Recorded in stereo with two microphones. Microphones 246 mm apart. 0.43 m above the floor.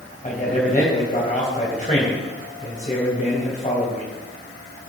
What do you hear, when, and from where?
0.2 s a man speaking: 30° left (ahead or behind), 3 m